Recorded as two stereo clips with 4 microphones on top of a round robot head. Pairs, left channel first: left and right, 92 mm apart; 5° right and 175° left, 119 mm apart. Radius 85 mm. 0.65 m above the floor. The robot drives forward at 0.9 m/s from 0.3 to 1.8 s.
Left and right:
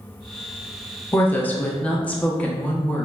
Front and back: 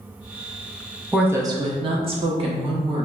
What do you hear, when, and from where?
1.1 s a woman speaking: 90° left, 0.6 m; by 3.1 s 165° left, 0.8 m